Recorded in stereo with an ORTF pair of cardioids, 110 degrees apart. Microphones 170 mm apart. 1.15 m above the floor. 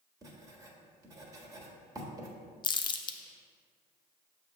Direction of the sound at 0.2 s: 20° right.